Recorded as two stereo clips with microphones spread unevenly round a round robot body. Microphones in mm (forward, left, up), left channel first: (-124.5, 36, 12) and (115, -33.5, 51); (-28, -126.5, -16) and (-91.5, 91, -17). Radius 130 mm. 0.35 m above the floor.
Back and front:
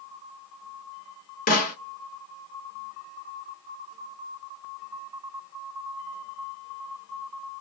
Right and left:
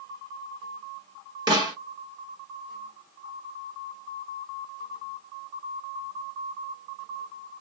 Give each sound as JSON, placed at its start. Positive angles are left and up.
{"t": 1.5, "sound": "a snare drum", "azimuth_deg": 170, "distance_m": 1.9}